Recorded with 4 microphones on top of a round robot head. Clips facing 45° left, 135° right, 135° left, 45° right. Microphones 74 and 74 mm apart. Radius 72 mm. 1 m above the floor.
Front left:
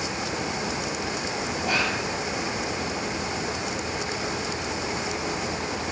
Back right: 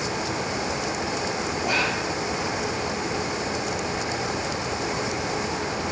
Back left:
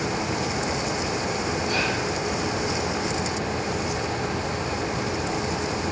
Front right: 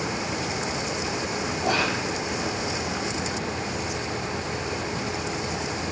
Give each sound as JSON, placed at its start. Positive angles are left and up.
{"t": 1.6, "sound": "whispering", "azimuth_deg": -50, "distance_m": 3.0}